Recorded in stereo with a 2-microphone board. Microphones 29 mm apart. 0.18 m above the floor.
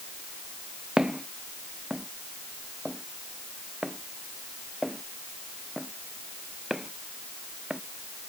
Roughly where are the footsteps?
Right.